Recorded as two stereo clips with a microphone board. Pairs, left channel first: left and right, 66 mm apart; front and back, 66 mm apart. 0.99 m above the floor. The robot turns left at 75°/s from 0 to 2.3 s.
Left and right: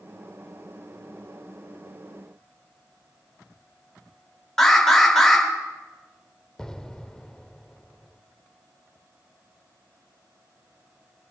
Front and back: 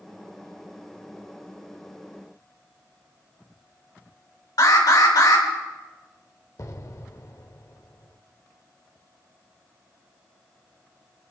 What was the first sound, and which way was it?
An alarm, 5° left.